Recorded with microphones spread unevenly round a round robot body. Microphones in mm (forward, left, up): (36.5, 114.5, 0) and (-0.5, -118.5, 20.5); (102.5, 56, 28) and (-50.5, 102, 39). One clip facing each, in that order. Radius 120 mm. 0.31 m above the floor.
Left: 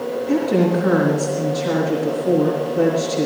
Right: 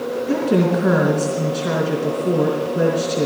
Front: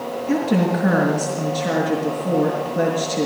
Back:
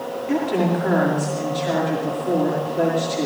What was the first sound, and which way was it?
A woman speaking, 70° right.